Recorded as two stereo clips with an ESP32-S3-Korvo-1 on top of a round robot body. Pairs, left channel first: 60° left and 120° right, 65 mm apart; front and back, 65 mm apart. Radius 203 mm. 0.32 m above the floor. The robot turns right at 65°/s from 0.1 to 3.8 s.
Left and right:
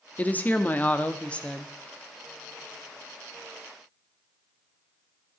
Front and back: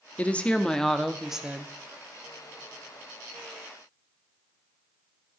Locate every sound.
0.2 s a woman speaking: 30° left, 1.2 m; by 1.7 s 135° left, 1.2 m